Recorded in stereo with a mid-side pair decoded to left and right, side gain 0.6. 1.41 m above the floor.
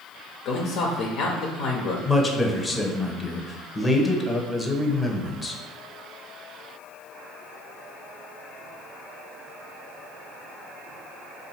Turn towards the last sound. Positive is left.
turn(degrees=20)